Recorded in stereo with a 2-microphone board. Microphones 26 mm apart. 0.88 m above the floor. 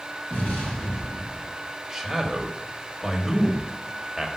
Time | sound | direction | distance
0.3 | an explosion | 70° left (ahead or behind) | 4 m
1.9 | a man speaking | 5° right (ahead or behind) | 1.5 m